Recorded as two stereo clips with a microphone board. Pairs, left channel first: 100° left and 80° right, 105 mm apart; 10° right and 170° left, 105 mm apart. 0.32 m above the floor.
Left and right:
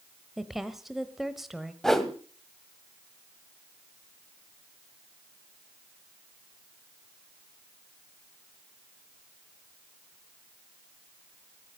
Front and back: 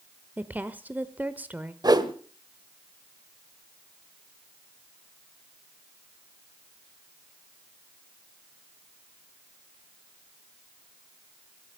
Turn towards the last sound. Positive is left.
turn(degrees=-175)